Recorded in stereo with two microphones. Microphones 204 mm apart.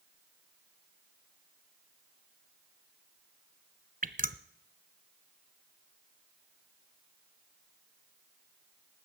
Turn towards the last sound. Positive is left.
turn(degrees=-40)  # may be behind; listen again after turning